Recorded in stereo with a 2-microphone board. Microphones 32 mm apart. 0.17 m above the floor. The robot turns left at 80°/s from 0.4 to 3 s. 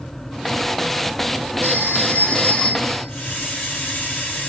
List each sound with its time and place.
1.6 s a phone ringing: 105° left, 5.5 m; by 3.1 s 5° right, 5.5 m
3.1 s a hiss: 15° left (ahead or behind), 3 m